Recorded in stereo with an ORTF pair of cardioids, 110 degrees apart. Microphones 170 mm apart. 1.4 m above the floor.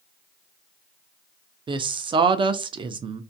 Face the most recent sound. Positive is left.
turn(degrees=-30)